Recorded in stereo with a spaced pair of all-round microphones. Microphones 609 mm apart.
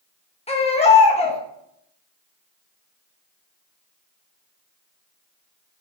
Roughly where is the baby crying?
Centre.